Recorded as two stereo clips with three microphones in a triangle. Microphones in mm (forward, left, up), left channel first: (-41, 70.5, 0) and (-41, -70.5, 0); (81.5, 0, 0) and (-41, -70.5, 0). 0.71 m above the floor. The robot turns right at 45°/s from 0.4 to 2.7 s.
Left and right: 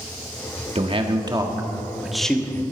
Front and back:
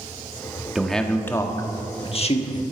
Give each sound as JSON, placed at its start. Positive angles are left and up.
{"t": 0.8, "sound": "a man speaking", "azimuth_deg": -65, "distance_m": 1.6}